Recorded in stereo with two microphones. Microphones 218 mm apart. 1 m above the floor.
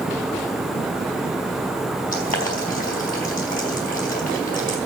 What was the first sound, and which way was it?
Boiling, 40° left (ahead or behind).